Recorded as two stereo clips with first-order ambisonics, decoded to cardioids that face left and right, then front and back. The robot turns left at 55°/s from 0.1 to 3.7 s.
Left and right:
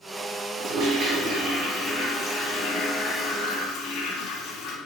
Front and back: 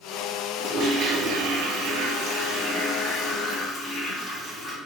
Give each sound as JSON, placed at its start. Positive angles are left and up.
{"t": 0.6, "sound": "a toilet flushing", "azimuth_deg": -120, "distance_m": 1.2}